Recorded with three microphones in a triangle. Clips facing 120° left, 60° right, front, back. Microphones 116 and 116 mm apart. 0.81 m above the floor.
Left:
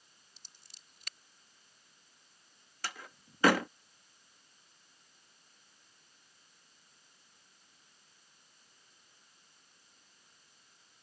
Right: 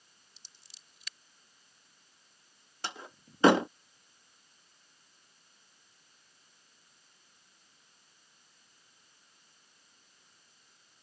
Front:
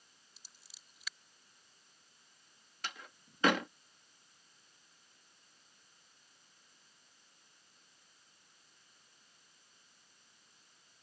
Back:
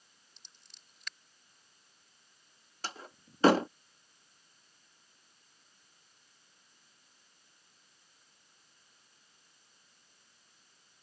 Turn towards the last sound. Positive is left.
turn(degrees=-125)